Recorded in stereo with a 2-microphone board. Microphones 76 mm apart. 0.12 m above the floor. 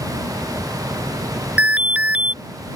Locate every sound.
1.6 s an alarm: 15° right (ahead or behind)